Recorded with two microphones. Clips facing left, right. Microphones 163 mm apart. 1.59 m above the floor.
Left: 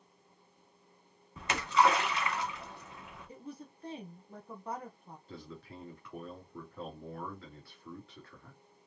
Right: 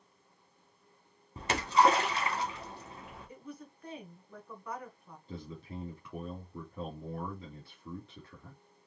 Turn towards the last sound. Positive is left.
turn(degrees=-15)  # may be behind; listen again after turning